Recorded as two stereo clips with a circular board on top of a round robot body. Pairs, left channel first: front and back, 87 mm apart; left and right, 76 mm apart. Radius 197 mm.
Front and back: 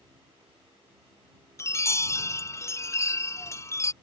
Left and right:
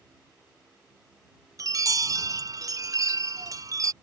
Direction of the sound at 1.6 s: 55° right.